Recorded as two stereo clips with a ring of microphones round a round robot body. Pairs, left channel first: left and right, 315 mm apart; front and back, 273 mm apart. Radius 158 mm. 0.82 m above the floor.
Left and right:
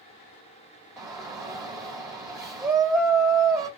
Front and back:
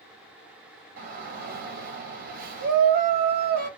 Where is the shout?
165° right, 1.1 m.